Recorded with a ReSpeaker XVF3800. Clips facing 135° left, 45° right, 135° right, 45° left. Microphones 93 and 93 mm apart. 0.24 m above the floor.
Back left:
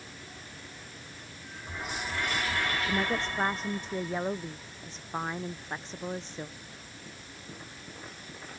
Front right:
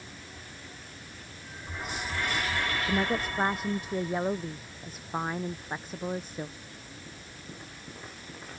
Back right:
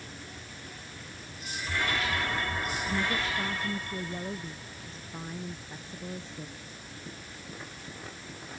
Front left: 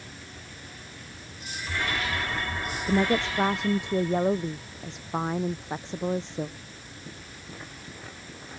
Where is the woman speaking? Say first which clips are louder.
Front right 1 dB, front left 9 dB; 35° left.